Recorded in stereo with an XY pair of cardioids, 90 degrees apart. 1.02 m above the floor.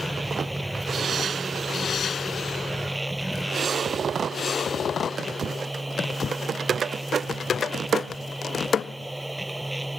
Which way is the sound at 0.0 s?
10° right.